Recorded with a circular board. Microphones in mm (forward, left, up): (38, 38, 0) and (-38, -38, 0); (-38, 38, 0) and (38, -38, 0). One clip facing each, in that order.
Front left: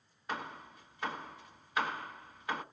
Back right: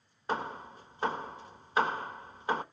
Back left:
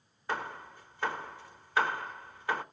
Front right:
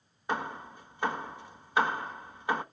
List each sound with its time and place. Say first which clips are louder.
0.3 s hammering: back right 6 dB, front right 3 dB; 105° right, 0.9 m